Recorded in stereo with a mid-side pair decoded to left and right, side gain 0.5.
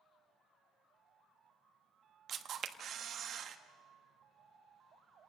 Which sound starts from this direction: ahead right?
A camera shutter, at 2.3 s.